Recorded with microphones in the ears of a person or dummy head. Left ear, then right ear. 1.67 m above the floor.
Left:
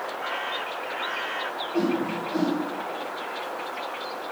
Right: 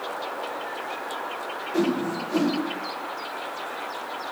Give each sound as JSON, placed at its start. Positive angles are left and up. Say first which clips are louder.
{"t": 1.7, "sound": "a whoosh", "louder": "right 2 dB", "side_deg": -65, "distance_m": 1.5}